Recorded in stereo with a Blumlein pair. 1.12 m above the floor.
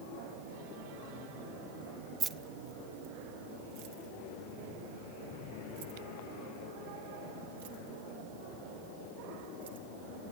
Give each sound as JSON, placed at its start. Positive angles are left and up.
{"t": 2.2, "sound": "keys jangling", "azimuth_deg": -20, "distance_m": 1.0}